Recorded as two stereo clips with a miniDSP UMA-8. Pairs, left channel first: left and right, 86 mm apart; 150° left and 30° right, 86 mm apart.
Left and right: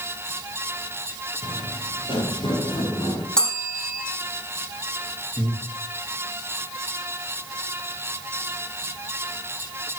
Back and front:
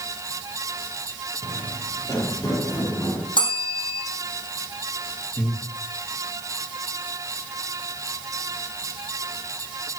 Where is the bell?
170° left, 5 m.